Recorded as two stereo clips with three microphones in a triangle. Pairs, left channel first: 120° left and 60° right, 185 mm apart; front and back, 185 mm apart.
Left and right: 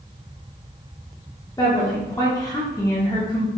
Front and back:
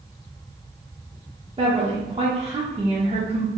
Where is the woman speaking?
175° left, 0.9 m.